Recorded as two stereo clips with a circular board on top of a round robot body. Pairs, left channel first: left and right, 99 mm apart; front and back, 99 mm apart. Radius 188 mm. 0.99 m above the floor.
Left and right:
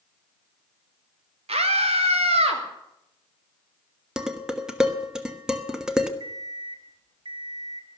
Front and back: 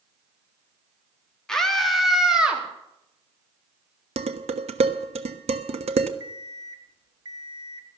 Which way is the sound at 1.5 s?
85° right.